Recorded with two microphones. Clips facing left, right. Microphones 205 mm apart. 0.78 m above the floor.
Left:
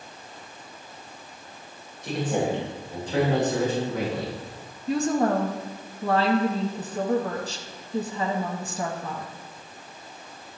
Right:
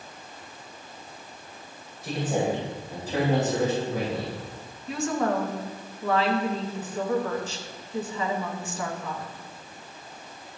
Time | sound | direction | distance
2.0 | a man speaking | 5° right (ahead or behind) | 2.5 m
4.9 | a woman speaking | 35° left (ahead or behind) | 0.8 m